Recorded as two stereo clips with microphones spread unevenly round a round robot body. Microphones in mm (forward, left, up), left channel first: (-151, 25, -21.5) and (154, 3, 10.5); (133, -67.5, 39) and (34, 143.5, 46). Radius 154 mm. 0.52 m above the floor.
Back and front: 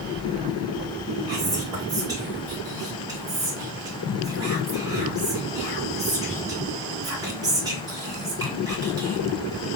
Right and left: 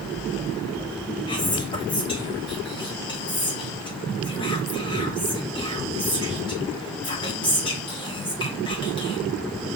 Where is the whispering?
80° right, 1.1 m.